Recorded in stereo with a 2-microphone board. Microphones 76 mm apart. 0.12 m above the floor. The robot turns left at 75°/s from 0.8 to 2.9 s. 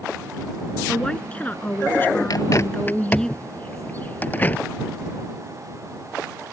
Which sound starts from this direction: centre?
A woman speaking, at 0.9 s.